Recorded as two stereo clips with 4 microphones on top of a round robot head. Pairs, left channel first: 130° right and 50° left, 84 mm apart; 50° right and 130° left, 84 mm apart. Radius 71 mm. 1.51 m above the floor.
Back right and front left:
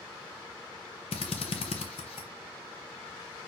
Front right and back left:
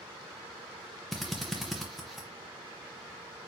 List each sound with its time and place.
1.1 s a drill: 140° right, 0.6 m